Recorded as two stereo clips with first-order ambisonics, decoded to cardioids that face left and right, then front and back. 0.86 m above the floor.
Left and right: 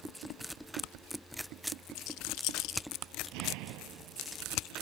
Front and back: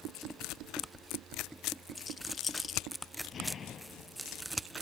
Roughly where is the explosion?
Ahead right.